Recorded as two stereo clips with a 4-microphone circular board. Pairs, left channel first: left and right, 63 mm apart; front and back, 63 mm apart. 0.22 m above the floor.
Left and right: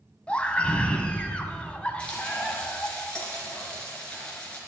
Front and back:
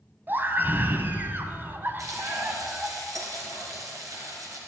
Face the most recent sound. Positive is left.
turn(degrees=160)